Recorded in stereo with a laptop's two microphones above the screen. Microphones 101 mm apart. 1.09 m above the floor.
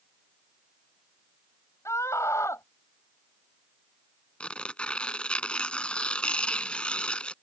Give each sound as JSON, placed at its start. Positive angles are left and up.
{"t": 1.9, "sound": "a scream", "side_deg": 30}
{"t": 4.4, "sound": "tearing paper", "side_deg": 10}